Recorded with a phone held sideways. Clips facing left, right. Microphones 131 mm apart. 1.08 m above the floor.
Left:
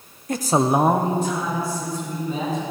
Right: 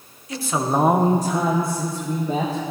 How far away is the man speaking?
About 0.7 m.